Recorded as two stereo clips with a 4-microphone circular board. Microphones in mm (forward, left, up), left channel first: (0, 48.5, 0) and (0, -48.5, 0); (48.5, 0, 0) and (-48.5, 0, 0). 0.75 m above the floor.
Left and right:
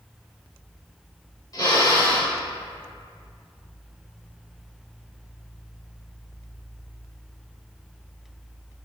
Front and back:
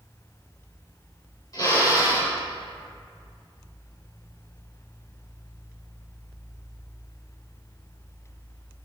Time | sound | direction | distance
1.5 | a drill | 45° left | 3.5 m